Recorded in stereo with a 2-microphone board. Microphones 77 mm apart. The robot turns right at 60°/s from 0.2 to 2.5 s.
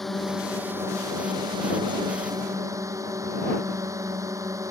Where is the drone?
175° left; by 4.7 s 45° right.